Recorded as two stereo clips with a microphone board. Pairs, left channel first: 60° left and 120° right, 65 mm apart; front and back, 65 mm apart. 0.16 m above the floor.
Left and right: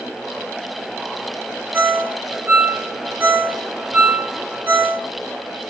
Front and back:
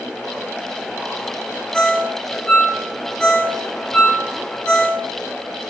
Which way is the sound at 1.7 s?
75° right.